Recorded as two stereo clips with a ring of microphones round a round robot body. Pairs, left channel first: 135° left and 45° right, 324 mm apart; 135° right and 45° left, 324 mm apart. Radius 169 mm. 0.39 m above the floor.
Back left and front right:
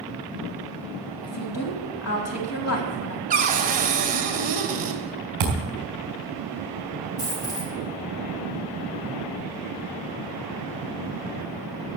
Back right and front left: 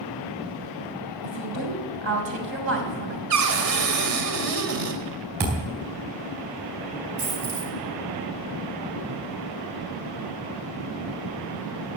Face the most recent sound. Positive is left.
turn(degrees=65)